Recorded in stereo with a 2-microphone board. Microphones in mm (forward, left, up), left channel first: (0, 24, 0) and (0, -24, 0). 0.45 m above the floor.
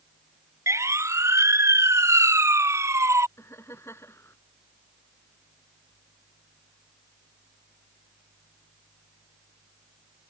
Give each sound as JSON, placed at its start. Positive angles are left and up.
{"t": 0.7, "sound": "a siren", "side_deg": -80}
{"t": 3.4, "sound": "laughter", "side_deg": 65}